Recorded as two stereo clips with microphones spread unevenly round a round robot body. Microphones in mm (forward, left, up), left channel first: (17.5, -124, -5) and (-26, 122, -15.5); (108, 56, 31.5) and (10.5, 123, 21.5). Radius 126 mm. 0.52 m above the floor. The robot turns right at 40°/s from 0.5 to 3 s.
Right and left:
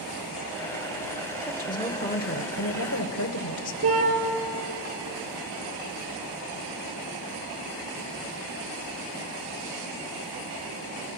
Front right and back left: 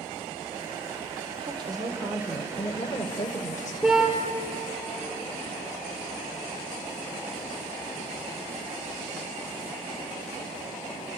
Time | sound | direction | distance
1.4 | a woman speaking | 170° right | 1.6 m
3.8 | a car horn | 65° left | 5 m